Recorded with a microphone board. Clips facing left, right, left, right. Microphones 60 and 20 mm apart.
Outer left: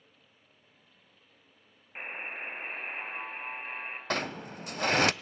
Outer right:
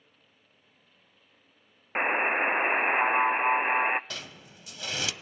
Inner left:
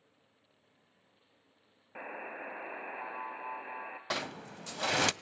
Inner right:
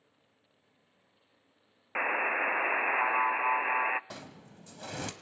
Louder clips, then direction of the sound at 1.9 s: Outer right 14 dB, inner right 13 dB; 75° right (ahead or behind).